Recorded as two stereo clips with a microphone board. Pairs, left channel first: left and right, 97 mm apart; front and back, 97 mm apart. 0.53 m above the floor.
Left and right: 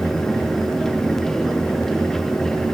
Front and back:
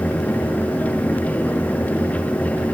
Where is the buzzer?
I don't hear a buzzer.